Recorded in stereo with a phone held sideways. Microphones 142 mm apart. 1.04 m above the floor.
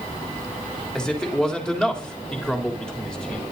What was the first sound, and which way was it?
A man speaking, 5° left (ahead or behind).